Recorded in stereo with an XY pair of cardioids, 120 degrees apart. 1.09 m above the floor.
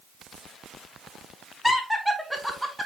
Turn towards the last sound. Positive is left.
turn(degrees=-5)